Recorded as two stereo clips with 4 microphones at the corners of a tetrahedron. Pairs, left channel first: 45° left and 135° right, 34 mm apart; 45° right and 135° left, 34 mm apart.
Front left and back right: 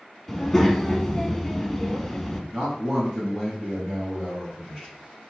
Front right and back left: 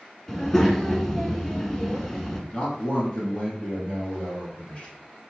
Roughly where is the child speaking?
Ahead.